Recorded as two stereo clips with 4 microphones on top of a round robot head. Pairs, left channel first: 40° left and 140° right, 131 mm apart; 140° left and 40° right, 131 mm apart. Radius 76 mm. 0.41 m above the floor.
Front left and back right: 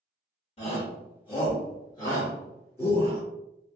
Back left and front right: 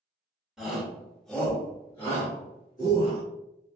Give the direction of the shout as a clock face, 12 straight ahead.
11 o'clock.